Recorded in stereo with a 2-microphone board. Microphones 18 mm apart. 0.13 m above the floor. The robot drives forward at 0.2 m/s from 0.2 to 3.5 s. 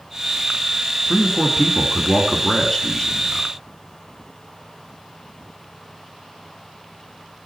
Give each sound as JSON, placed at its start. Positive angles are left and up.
{"t": 1.1, "sound": "a man speaking", "side_deg": 25, "distance_m": 1.2}